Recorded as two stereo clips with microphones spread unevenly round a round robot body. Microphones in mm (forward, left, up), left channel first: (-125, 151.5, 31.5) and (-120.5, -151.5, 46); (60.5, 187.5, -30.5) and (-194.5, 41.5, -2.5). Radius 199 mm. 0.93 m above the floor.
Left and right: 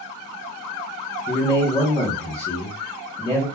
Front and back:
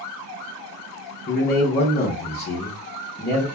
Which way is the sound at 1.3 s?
35° left.